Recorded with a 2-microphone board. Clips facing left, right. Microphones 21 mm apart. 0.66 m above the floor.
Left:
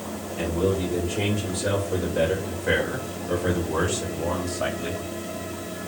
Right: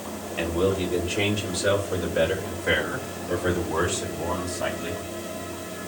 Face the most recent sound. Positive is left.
turn(degrees=15)  # may be behind; listen again after turning